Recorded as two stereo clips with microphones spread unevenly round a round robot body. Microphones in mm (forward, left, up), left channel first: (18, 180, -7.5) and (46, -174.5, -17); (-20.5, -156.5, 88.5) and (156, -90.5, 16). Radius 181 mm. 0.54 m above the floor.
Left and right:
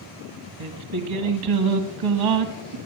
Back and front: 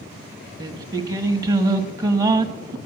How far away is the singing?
About 1.3 m.